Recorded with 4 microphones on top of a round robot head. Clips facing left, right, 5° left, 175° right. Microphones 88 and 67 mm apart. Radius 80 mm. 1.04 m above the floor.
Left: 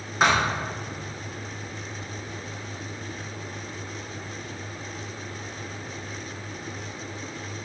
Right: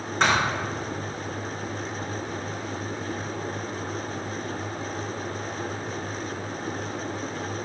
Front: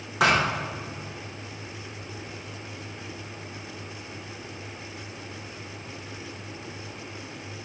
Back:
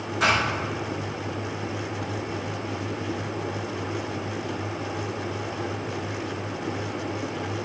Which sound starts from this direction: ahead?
A thud, at 0.2 s.